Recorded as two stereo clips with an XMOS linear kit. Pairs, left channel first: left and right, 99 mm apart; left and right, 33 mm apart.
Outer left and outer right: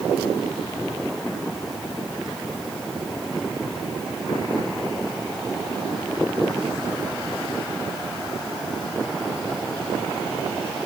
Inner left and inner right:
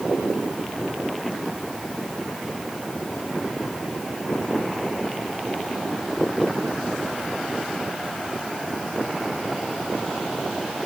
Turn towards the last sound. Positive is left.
No sound to turn to.